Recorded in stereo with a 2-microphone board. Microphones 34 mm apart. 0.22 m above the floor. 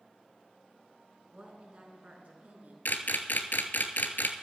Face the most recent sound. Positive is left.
turn(degrees=80)